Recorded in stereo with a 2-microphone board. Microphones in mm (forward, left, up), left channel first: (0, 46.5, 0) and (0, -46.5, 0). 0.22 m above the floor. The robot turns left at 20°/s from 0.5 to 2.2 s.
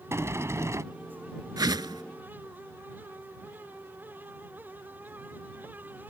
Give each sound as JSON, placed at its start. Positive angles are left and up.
{"t": 0.1, "sound": "a sliding door", "side_deg": -30}
{"t": 1.6, "sound": "a whoosh", "side_deg": -45}